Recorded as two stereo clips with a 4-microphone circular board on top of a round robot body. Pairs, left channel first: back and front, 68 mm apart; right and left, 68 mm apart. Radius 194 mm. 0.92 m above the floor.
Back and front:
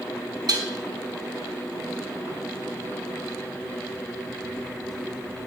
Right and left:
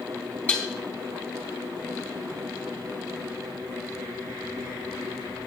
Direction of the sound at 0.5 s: 25° right.